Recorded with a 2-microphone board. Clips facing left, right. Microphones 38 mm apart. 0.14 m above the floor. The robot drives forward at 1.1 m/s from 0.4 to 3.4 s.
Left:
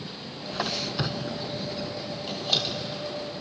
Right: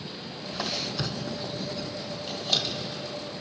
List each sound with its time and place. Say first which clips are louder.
0.5 s a squeak: left 2 dB; 15° left (ahead or behind), 0.6 m; by 3.1 s 5° left (ahead or behind), 2.5 m